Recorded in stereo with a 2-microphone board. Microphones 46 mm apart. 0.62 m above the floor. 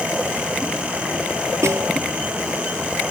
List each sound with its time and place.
1.6 s a snare drum: 80° right